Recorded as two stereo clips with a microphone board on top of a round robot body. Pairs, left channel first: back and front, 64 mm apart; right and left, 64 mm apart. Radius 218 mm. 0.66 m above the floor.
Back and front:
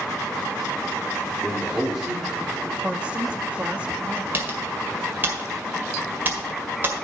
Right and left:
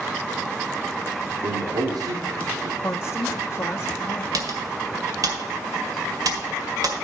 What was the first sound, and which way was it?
A man speaking, 80° left.